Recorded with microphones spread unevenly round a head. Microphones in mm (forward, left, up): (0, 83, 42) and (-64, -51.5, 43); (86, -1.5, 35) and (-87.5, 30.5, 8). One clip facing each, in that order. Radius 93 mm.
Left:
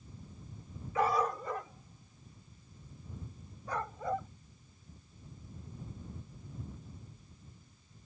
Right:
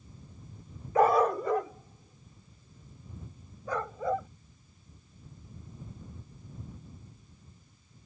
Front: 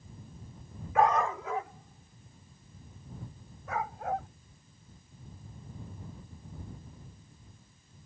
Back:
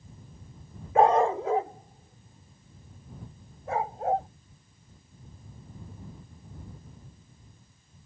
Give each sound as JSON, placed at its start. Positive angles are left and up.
{"t": 0.9, "sound": "a dog barking", "azimuth_deg": -130}